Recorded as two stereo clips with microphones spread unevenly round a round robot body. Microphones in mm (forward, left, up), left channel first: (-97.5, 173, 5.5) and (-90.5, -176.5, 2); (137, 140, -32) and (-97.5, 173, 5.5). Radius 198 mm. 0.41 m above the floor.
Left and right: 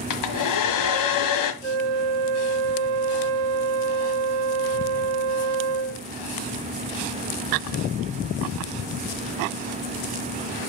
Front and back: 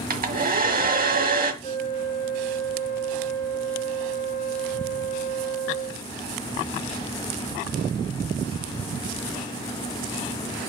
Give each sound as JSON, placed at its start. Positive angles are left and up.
{"t": 0.1, "sound": "a hair dryer", "azimuth_deg": 120, "distance_m": 1.8}
{"t": 1.6, "sound": "a flute", "azimuth_deg": -85, "distance_m": 0.5}